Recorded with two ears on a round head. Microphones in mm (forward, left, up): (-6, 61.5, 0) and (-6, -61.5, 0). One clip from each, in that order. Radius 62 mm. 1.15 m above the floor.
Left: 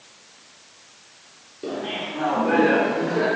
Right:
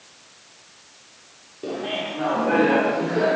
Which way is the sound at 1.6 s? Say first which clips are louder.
Right 1 dB; centre (ahead or behind).